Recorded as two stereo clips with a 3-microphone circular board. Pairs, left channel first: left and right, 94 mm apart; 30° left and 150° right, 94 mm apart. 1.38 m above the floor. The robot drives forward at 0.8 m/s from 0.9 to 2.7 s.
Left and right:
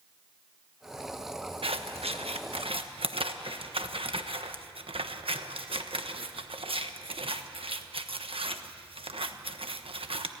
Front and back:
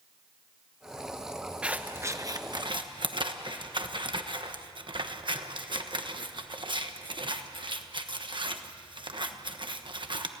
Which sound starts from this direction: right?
Scissors, at 1.6 s.